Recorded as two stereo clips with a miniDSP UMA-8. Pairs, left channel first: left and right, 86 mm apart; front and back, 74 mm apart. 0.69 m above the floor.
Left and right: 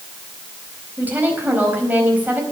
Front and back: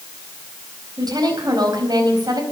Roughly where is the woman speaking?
Behind.